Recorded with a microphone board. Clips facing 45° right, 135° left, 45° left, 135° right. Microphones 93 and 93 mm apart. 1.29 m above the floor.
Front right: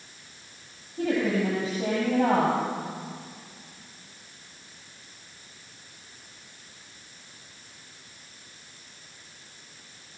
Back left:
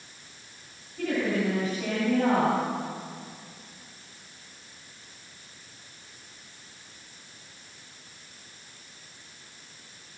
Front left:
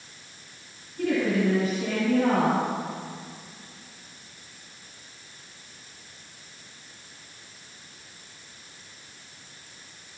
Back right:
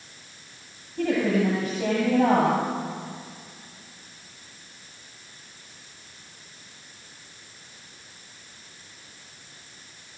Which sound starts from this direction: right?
A woman speaking, at 1.0 s.